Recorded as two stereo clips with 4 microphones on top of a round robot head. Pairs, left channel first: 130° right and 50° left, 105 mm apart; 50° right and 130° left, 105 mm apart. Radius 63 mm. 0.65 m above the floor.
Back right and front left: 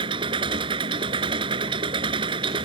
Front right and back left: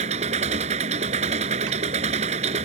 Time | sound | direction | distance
0.0 | an engine running | 100° left | ?